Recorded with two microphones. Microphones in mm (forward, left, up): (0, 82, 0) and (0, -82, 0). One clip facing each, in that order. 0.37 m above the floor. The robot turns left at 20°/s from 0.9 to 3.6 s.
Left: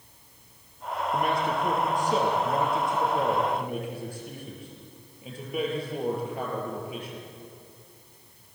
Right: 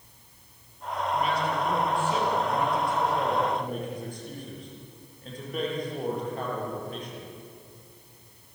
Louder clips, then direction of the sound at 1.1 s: Left 1 dB; 60° left.